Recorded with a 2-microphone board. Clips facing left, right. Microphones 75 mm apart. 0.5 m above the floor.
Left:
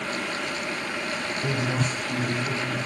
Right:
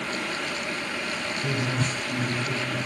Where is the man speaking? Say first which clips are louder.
Left 1 dB; 25° left (ahead or behind), 1.1 m.